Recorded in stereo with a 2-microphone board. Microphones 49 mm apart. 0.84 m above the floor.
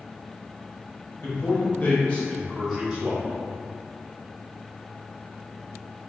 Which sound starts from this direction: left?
A man speaking, at 1.2 s.